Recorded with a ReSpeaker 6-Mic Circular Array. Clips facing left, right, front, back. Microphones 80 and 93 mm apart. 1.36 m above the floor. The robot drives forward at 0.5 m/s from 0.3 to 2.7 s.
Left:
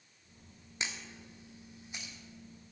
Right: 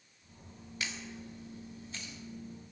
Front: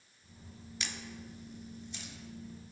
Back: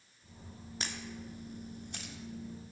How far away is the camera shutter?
About 1.1 m.